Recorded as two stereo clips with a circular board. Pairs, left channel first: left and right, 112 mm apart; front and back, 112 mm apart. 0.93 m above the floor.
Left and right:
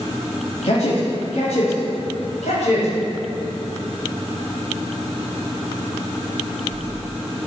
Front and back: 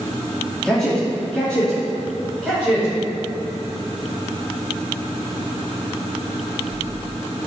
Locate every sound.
0.6 s a man speaking: 85° left, 2 m